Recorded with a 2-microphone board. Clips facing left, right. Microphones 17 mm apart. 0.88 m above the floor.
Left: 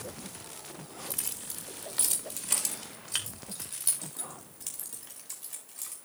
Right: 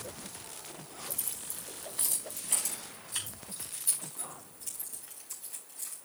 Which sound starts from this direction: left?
Keys jangling, at 1.1 s.